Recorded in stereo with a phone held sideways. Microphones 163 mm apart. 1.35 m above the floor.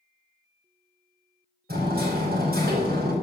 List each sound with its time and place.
1.7 s hammering: 75° right (ahead or behind), 5.5 m